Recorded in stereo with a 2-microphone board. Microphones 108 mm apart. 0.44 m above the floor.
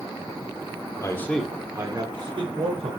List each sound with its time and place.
1.0 s a man speaking: 30° left (ahead or behind), 1.2 m; by 2.9 s 55° right (ahead or behind), 2 m